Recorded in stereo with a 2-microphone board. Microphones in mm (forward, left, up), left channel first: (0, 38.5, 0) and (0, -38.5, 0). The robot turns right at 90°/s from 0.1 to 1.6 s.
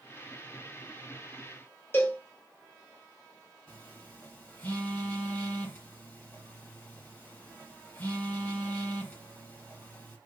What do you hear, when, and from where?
1.9 s a cowbell: 25° left (ahead or behind), 1.1 m
3.7 s a phone buzzing: 20° left (ahead or behind), 2 m